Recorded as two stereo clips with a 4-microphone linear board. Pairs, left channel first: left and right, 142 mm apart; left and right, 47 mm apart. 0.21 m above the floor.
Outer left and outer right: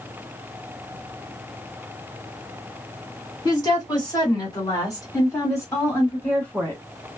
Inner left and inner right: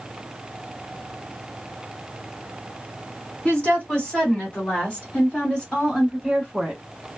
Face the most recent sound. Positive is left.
turn(degrees=10)  # may be behind; listen again after turning